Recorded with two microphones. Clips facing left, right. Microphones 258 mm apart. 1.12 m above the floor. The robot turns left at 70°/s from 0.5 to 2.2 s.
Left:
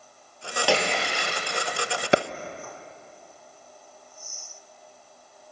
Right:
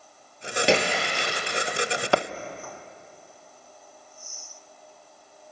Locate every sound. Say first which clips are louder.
0.7 s a splash: right 2 dB; 155° right, 4.5 m; by 1.4 s 150° left, 4.5 m
2.1 s a clap: left 2 dB; 20° left (ahead or behind), 0.7 m; by 2.2 s 15° left (ahead or behind), 0.7 m